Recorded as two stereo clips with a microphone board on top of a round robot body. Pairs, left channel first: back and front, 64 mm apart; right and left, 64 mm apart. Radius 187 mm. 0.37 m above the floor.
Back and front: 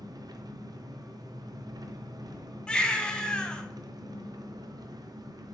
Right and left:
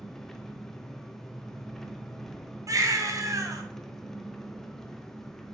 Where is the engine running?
5° right, 0.7 m.